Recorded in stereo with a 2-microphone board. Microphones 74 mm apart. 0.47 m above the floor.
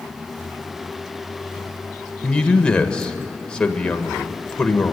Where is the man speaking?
15° left (ahead or behind), 1.5 m.